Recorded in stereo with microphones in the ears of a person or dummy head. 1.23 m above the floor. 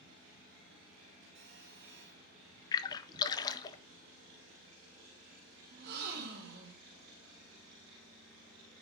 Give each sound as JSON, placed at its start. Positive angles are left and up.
{"t": 1.4, "sound": "a phone buzzing", "side_deg": -65, "distance_m": 5.0}
{"t": 2.7, "sound": "a splash", "side_deg": 25, "distance_m": 0.6}
{"t": 5.7, "sound": "a gasp", "side_deg": -55, "distance_m": 2.5}